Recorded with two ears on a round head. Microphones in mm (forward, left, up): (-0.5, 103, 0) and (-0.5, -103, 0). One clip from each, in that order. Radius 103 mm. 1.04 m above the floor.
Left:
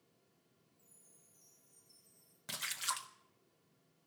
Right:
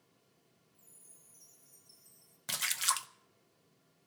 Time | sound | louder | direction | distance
0.7 | a chime | right 5 dB | 65° right (ahead or behind) | 4.5 m
2.5 | a splash | right 6 dB | 25° right (ahead or behind) | 0.5 m